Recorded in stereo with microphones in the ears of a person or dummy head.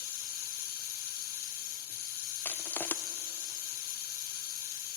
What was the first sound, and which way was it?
Running water, 55° left (ahead or behind).